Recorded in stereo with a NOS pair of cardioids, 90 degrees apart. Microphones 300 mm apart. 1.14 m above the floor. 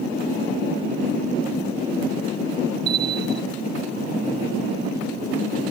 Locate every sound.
2.9 s a bell: 55° right, 1.1 m